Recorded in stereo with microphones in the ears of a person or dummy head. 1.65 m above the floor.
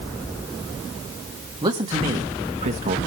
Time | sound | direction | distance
1.6 | a man speaking | 20° right (ahead or behind) | 2.5 m